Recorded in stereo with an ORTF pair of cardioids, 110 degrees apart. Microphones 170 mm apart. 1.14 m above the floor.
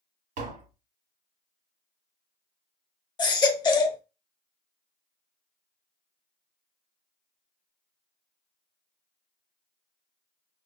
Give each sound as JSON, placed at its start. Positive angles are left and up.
{"t": 0.4, "sound": "tapping", "azimuth_deg": -55, "distance_m": 1.3}
{"t": 3.2, "sound": "a baby crying", "azimuth_deg": 25, "distance_m": 0.7}